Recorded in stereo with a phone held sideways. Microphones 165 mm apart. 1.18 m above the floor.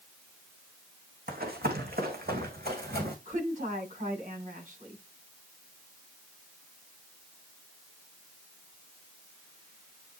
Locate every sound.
1.3 s running footsteps: 65° right (ahead or behind), 3 m; by 3.1 s 70° right (ahead or behind), 3.5 m
3.2 s a woman speaking: 55° right (ahead or behind), 7 m